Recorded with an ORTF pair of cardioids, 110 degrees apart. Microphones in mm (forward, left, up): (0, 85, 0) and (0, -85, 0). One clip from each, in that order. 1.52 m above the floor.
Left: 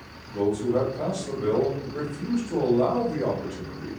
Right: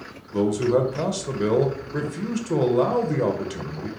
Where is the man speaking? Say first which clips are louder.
Right 3 dB; 70° right, 0.5 m.